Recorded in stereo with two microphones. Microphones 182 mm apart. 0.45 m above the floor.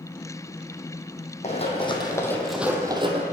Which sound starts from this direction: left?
Running footsteps, at 1.4 s.